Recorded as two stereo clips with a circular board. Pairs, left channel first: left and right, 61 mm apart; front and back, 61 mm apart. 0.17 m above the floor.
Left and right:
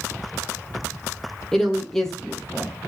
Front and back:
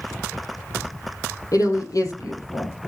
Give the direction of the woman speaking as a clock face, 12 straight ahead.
12 o'clock.